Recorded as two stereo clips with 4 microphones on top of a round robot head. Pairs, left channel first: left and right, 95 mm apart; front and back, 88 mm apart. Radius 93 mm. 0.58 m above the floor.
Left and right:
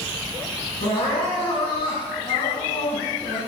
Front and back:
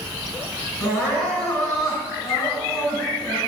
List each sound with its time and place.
0.8 s crying: 60° left, 4.5 m